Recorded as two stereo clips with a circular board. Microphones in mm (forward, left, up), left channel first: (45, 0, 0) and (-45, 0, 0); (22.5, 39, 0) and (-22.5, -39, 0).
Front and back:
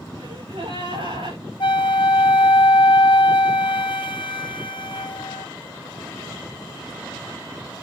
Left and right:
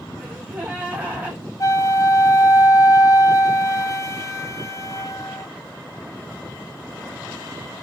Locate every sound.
0.2 s a gasp: 170° left, 9.5 m
1.6 s a flute: 15° left, 2 m